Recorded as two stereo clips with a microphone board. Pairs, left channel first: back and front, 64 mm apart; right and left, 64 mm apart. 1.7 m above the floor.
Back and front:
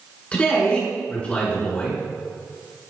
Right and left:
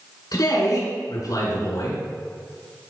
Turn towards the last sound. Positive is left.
turn(degrees=-110)